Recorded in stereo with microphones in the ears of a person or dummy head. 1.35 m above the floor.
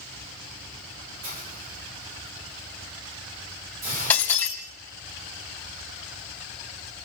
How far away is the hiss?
About 4 m.